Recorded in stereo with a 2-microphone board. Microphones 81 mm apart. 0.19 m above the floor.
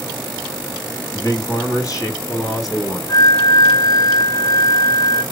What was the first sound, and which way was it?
A man speaking, 40° left (ahead or behind).